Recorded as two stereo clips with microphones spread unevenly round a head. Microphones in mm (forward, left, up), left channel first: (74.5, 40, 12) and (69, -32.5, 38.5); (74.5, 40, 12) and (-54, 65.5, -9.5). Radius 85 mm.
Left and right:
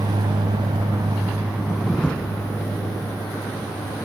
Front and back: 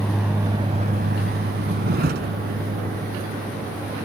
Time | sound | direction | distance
0.0 | a vehicle | 95° right | ?